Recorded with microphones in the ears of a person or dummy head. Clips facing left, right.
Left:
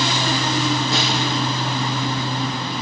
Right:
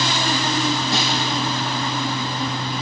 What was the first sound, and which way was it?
A snare drum, 75° left (ahead or behind).